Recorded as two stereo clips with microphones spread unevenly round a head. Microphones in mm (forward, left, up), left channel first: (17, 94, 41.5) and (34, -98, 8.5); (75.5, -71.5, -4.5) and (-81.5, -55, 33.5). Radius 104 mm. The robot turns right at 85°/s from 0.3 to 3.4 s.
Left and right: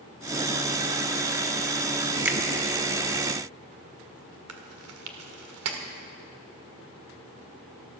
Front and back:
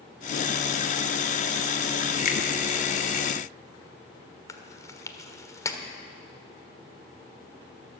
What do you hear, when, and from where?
2.2 s a finger snap: 10° right, 1.4 m; by 2.4 s 5° left, 1.4 m
4.5 s chewing: 80° right, 1.5 m